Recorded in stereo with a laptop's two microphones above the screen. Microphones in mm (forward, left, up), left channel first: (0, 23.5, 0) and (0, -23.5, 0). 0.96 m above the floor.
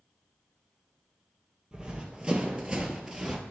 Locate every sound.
1.7 s running footsteps: 20° right (ahead or behind), 1.2 m; by 3.4 s 15° right (ahead or behind), 1.1 m